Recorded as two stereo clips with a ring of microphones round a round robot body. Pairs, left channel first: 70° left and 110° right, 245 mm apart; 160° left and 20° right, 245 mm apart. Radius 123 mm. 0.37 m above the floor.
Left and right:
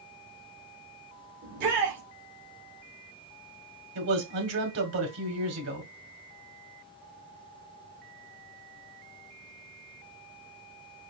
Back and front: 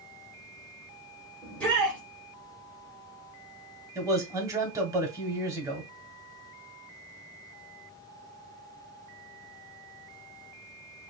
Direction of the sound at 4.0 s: 100° right.